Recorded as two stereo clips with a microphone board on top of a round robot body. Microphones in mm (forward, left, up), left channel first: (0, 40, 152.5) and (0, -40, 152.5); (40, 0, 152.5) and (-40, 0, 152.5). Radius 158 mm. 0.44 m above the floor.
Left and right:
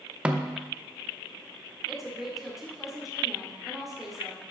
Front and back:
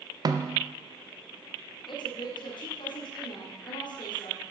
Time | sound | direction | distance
0.2 | a snare drum | 165° right | 0.9 m
1.9 | a woman speaking | 5° right | 1.8 m